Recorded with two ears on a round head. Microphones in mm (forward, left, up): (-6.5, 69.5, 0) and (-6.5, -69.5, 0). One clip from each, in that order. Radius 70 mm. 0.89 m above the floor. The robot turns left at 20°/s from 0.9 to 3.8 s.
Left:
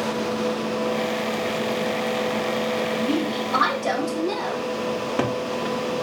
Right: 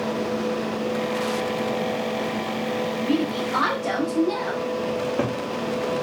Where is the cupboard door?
75° left (ahead or behind), 0.7 m.